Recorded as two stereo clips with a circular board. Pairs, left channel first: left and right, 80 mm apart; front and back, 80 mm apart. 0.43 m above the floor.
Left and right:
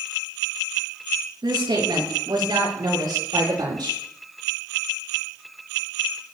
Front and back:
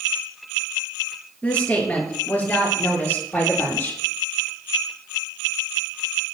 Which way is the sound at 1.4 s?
75° right.